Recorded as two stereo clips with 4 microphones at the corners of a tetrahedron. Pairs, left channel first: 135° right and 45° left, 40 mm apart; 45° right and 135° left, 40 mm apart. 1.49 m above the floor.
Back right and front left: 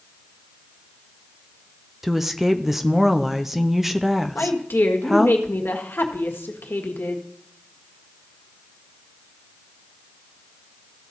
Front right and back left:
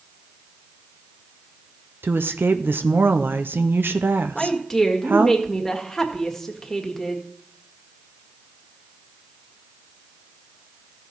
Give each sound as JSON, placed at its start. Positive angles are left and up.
{"t": 2.0, "sound": "a woman speaking", "azimuth_deg": 125, "distance_m": 0.6}
{"t": 4.3, "sound": "a woman speaking", "azimuth_deg": -125, "distance_m": 1.7}